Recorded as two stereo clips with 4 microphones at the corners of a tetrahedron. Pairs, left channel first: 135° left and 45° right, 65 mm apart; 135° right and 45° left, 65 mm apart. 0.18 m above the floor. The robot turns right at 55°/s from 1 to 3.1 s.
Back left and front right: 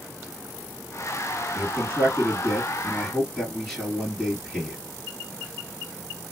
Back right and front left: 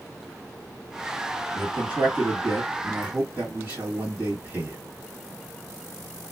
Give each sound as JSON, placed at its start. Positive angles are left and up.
{"t": 1.6, "sound": "a man speaking", "azimuth_deg": -25, "distance_m": 1.6}